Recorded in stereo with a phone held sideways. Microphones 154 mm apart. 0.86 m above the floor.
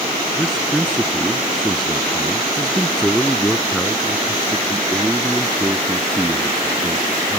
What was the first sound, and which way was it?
A man speaking, centre (ahead or behind).